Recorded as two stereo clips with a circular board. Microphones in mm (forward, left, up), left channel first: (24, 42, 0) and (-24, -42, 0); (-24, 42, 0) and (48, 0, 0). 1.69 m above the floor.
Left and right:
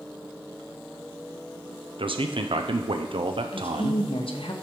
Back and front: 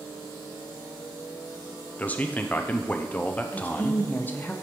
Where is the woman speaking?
80° left, 0.9 m.